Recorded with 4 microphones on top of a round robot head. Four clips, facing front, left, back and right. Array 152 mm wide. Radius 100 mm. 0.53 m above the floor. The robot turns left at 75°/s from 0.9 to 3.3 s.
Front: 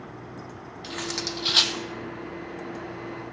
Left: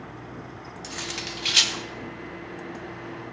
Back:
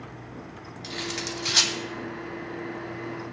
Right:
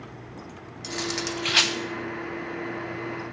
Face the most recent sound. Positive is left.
turn(degrees=165)